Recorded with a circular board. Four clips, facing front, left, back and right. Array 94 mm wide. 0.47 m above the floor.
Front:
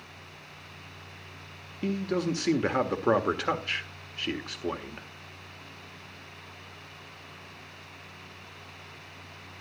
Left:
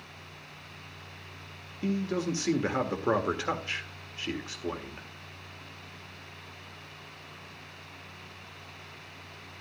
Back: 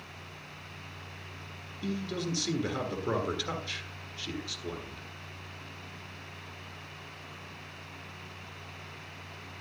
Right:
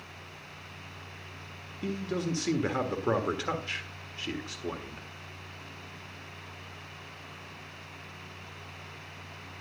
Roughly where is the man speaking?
Ahead.